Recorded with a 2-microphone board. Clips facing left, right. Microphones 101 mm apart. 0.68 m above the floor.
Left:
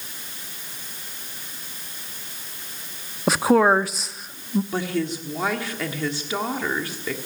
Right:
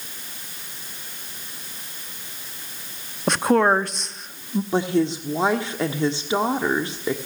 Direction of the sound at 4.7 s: 25° right (ahead or behind).